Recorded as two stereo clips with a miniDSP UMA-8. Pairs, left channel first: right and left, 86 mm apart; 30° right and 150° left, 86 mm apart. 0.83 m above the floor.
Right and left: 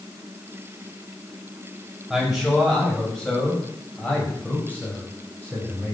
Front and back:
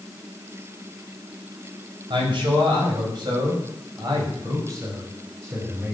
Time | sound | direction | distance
2.1 | a man speaking | straight behind | 6 m